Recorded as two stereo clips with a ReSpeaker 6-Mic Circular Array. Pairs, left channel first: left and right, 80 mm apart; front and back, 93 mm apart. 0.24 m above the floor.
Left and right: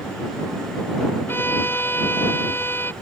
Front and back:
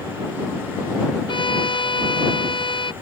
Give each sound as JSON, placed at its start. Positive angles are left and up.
{"t": 1.3, "sound": "a violin", "azimuth_deg": 25}